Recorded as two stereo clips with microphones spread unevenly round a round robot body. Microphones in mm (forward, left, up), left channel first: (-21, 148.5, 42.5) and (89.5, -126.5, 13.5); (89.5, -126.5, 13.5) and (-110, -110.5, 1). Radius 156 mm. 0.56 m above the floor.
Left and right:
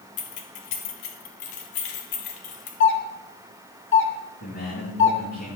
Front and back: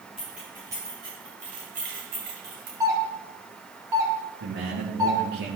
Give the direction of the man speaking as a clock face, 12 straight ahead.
6 o'clock.